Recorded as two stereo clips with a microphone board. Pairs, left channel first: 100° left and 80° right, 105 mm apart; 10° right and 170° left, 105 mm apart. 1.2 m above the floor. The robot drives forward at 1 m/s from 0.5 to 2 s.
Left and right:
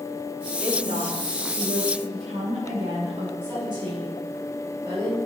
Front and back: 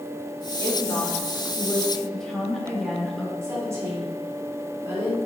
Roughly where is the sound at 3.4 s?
Behind right.